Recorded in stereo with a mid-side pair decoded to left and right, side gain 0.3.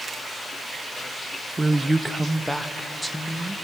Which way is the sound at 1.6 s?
30° right.